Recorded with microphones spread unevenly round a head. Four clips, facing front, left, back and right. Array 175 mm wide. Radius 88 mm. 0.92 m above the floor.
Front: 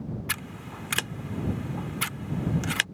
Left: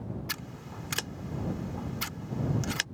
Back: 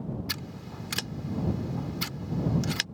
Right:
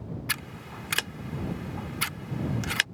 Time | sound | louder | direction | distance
0.3 | scissors | right 4 dB, front 2 dB | 20° right | ?